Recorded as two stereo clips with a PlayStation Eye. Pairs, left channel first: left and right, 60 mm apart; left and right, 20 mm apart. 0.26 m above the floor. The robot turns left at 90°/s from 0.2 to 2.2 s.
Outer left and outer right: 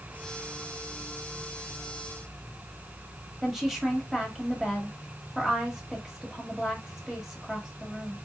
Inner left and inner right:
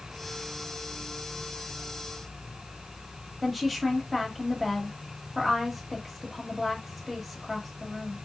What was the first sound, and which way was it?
A woman speaking, 5° right (ahead or behind).